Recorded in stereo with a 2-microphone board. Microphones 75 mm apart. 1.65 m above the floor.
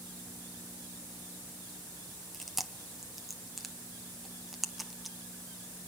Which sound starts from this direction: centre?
Chewing, at 2.3 s.